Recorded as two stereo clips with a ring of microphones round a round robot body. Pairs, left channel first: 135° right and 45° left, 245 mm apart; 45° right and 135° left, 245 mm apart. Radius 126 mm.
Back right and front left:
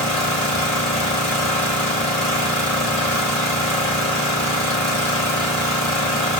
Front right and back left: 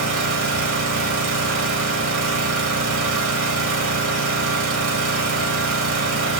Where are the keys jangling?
No keys jangling in this recording.